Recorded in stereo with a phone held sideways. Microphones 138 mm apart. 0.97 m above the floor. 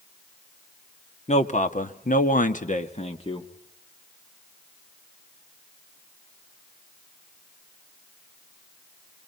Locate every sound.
1.3 s a man speaking: 55° left (ahead or behind), 1.6 m; by 3.5 s 35° left (ahead or behind), 1.7 m